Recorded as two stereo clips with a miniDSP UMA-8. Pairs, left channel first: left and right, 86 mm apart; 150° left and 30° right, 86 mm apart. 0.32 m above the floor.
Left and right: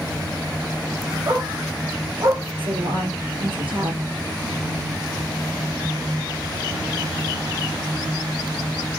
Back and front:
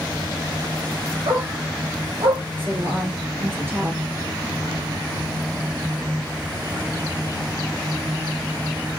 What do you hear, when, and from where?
1.3 s a dog barking: 50° right, 5 m; by 2.4 s 45° right, 3.5 m
2.6 s a woman speaking: 90° right, 6 m